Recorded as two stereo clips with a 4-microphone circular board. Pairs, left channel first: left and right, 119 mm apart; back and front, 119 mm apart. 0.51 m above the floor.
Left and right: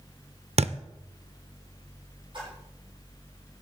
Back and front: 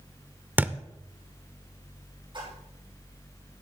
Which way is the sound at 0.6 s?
75° right.